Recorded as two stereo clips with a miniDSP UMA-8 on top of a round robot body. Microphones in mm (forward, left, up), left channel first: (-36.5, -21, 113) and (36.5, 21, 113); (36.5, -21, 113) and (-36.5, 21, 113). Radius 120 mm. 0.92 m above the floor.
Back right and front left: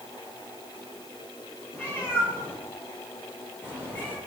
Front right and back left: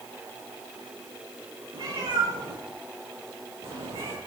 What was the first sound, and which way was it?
A cat meowing, 145° left.